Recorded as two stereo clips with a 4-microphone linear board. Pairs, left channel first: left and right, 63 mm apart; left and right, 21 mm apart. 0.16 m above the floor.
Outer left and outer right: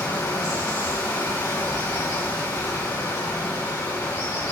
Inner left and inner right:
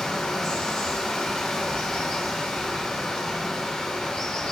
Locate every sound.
0.0 s running water: 70° left (ahead or behind), 4 m